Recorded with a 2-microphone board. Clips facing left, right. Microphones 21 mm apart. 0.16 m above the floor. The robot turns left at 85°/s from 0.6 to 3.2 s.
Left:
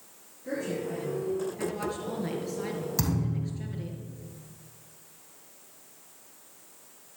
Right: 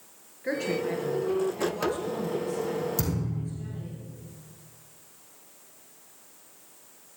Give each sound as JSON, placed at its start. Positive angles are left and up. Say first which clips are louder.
{"t": 0.4, "sound": "a woman speaking", "louder": "right 4 dB", "azimuth_deg": -95, "distance_m": 2.0}
{"t": 3.0, "sound": "a thud", "louder": "left 1 dB", "side_deg": 30, "distance_m": 3.0}